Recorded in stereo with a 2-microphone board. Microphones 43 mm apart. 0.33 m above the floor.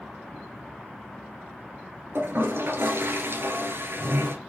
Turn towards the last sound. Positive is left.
turn(degrees=-65)  # may be behind; listen again after turning